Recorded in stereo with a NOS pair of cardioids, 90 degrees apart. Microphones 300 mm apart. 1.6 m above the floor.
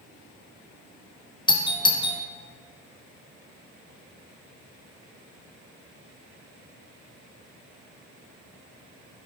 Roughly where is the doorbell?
Ahead.